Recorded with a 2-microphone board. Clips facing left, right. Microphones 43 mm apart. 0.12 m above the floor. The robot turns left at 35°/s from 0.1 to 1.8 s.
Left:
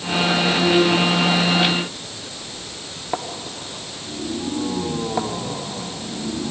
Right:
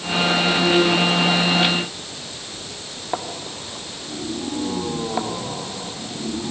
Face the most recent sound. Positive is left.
No sound to turn to.